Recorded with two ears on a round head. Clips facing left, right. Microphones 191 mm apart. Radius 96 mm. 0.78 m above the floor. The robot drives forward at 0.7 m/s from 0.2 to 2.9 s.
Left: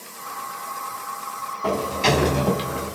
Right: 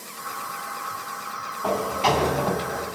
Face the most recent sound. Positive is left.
turn(degrees=40)  # may be behind; listen again after turning